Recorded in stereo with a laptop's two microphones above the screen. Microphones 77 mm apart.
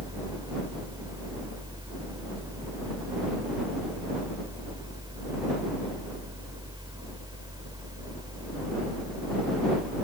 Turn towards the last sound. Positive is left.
turn(degrees=-65)  # may be behind; listen again after turning